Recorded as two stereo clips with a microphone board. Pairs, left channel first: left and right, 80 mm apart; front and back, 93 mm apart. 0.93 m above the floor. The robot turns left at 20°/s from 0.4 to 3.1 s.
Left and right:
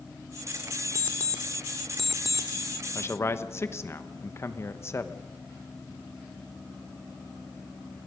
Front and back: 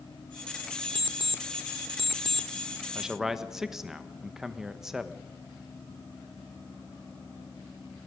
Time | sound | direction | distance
0.9 | an alarm clock | 20° left | 0.9 m
3.0 | a man speaking | 100° left | 1.1 m